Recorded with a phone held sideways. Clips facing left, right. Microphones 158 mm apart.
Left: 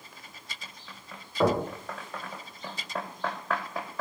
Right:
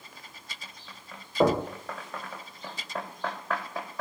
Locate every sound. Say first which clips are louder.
1.4 s knocking: right 2 dB; 20° right (ahead or behind), 0.9 m